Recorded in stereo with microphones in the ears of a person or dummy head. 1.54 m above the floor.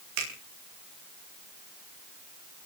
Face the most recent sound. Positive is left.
turn(degrees=-65)  # may be behind; listen again after turning